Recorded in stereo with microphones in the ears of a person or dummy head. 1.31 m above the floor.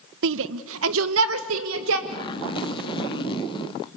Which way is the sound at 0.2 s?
75° right (ahead or behind).